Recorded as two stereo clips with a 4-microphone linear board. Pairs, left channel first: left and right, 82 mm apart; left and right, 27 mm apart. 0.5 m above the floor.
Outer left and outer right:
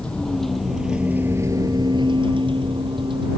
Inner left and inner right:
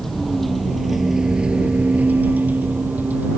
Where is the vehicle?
10° left (ahead or behind); by 3.4 s 70° right (ahead or behind).